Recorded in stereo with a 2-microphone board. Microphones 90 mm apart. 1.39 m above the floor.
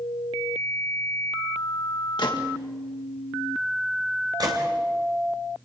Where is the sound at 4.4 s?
45° right (ahead or behind), 3.5 m.